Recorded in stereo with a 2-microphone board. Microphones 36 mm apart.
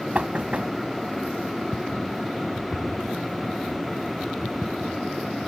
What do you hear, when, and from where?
0.1 s knocking: 35° right (ahead or behind)